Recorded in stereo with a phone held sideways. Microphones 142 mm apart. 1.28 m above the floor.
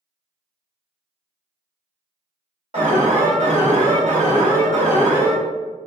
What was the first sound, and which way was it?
An alarm, 55° right (ahead or behind).